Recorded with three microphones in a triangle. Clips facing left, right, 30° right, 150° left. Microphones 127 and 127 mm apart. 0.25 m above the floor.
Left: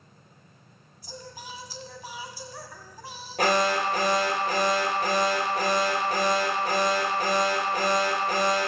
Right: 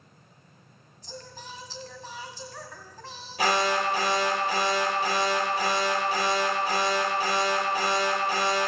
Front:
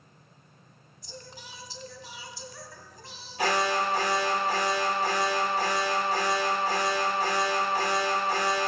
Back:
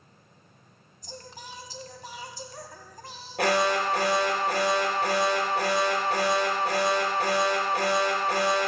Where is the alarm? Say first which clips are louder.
Left 1 dB, back 2 dB; 125° left, 4 m.